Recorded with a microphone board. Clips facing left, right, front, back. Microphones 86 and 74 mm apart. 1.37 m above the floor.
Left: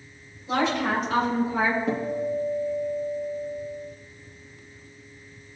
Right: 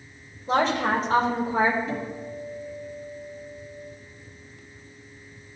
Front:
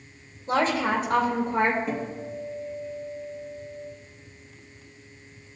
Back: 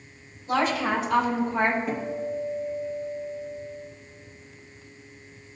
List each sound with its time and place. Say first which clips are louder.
0.5 s a woman speaking: right 2 dB, front 1 dB; 45° right, 3 m; by 1.8 s 35° right, 2.5 m
1.9 s a guitar: left 6 dB, back 2 dB; 95° left, 1.5 m